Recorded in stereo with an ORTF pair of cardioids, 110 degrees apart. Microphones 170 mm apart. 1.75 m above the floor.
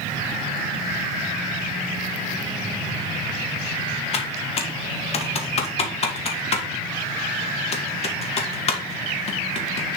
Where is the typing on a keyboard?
40° left, 1.7 m.